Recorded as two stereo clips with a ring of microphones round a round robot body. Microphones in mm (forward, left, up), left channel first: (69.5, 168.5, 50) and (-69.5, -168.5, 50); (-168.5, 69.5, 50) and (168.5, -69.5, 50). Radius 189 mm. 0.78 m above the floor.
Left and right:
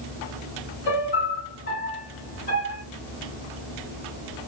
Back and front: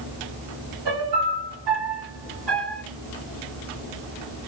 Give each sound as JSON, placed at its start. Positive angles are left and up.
{"t": 0.8, "sound": "a piano", "azimuth_deg": 5, "distance_m": 2.5}